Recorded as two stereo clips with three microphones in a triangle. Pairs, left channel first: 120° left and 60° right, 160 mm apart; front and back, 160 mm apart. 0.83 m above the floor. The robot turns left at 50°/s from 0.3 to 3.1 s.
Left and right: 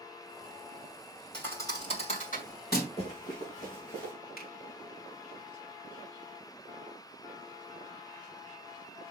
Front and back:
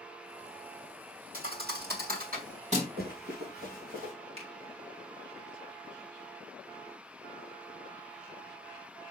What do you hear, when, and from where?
1.3 s a thud: 155° right, 2.5 m; by 2.9 s 125° left, 2.5 m
3.0 s running footsteps: 175° left, 4.5 m; by 4.1 s 155° left, 4.5 m
4.4 s a finger snap: 130° left, 3 m